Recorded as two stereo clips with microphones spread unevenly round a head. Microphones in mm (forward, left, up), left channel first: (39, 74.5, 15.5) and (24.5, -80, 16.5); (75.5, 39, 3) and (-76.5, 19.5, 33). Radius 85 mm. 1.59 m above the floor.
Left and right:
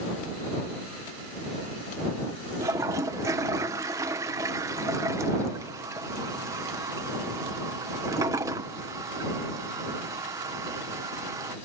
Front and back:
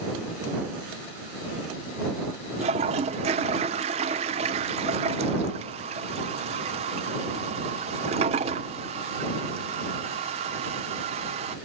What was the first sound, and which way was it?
A toilet flushing, 160° right.